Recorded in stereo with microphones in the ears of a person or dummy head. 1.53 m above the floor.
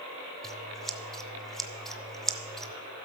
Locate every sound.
0.4 s scissors: centre (ahead or behind), 0.5 m